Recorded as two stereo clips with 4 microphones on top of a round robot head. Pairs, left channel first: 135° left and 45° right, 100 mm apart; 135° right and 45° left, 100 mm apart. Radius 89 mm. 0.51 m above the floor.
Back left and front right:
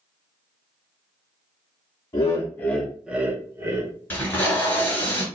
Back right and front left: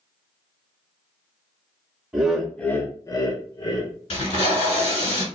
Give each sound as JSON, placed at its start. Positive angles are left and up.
{"t": 2.1, "sound": "laughter", "azimuth_deg": 120, "distance_m": 0.9}
{"t": 4.1, "sound": "tape being pulled", "azimuth_deg": -155, "distance_m": 1.6}